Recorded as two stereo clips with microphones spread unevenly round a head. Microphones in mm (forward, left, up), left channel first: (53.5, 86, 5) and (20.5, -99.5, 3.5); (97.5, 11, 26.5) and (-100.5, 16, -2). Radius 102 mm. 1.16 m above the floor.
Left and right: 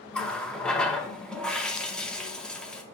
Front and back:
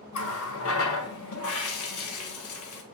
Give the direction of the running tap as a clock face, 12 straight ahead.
12 o'clock.